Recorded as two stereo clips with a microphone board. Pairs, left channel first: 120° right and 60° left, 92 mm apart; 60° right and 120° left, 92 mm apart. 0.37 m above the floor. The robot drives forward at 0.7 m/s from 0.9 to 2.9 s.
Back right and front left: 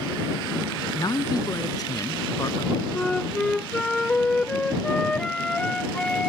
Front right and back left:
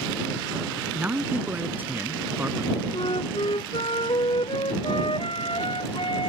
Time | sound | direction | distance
0.9 | a man speaking | 170° right | ?
2.9 | a flute | 40° right | ?